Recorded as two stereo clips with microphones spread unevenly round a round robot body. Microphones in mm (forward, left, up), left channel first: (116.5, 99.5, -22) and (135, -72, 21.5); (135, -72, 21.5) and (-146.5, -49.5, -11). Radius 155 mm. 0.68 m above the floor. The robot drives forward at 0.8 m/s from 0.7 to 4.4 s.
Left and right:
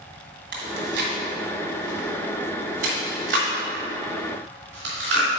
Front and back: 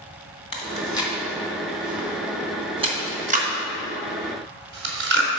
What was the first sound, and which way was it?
Chewing, 75° right.